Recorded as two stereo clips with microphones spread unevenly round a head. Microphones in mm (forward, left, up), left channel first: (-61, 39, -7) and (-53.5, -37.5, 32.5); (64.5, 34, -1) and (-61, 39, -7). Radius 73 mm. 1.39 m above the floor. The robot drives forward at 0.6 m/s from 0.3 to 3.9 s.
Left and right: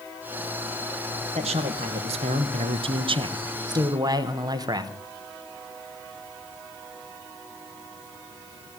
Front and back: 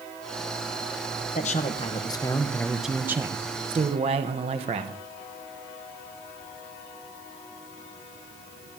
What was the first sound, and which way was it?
A man speaking, 45° right.